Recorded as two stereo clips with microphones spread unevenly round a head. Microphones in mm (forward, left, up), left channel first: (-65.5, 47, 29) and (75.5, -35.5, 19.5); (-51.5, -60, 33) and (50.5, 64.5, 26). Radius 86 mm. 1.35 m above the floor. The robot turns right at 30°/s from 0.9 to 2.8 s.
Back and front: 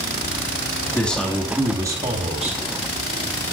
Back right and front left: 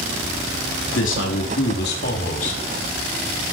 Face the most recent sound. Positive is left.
turn(degrees=-75)